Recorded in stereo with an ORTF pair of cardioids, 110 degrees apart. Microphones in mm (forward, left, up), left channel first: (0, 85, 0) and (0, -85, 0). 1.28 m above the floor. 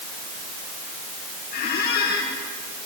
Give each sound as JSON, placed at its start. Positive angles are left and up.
{"t": 1.5, "sound": "a squeak", "azimuth_deg": 65, "distance_m": 7.0}